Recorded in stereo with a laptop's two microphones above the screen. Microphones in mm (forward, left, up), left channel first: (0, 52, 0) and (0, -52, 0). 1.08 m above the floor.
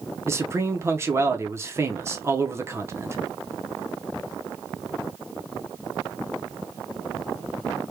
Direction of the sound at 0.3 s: 25° right (ahead or behind).